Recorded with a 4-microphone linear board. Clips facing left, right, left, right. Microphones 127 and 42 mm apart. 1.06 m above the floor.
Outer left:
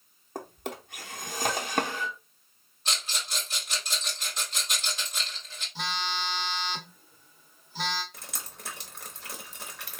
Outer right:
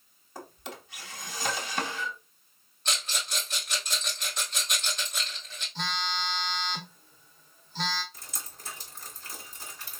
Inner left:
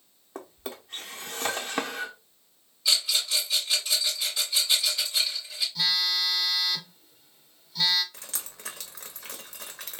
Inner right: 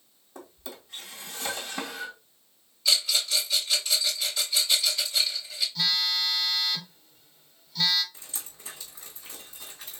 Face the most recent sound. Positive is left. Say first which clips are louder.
# outer left 2 dB, inner left 3 dB
turn(degrees=75)  # may be behind; listen again after turning